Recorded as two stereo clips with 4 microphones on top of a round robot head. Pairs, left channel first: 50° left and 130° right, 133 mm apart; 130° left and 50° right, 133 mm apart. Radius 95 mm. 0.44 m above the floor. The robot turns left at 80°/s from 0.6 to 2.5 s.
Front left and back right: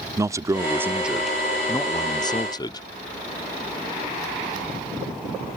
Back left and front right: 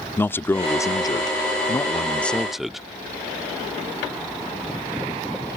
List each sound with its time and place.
0.2 s a man speaking: 170° right; by 2.8 s 35° left